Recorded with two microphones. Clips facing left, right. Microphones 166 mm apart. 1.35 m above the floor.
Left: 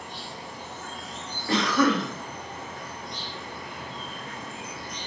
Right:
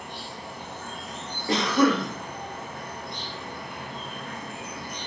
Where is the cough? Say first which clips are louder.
Right 1 dB; 20° right (ahead or behind), 0.9 m.